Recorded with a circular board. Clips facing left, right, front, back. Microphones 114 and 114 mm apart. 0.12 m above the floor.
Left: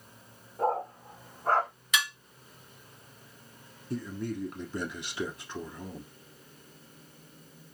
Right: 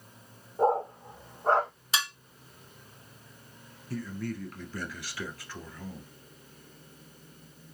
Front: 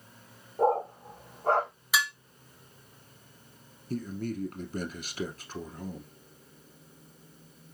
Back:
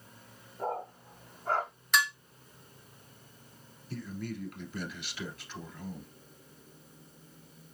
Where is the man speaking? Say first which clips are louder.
Left 1 dB, front 5 dB; 25° left, 1.5 m.